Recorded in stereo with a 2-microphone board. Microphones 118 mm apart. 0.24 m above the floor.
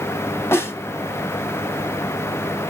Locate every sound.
0.5 s a snare drum: 20° left (ahead or behind), 0.7 m